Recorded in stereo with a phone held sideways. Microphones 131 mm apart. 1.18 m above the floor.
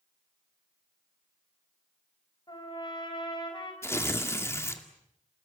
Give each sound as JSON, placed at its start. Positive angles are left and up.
{"t": 2.5, "sound": "a trumpet", "side_deg": 35, "distance_m": 4.5}
{"t": 3.8, "sound": "tearing paper", "side_deg": 20, "distance_m": 2.0}